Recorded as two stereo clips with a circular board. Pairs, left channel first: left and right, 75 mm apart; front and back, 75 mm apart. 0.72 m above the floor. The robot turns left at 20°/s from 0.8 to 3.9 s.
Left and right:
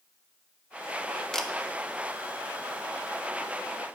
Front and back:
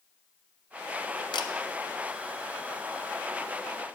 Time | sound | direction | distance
1.3 | a camera shutter | 5° left | 0.5 m